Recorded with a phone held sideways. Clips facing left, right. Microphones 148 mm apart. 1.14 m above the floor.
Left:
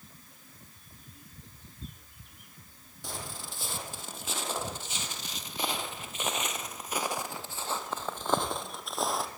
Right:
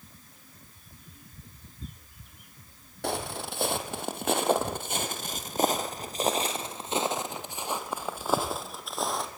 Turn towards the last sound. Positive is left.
turn(degrees=5)  # may be behind; listen again after turning